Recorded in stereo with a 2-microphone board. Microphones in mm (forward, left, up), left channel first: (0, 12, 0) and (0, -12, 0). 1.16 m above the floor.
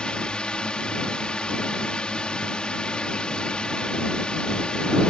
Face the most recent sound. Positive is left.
turn(degrees=40)  # may be behind; listen again after turning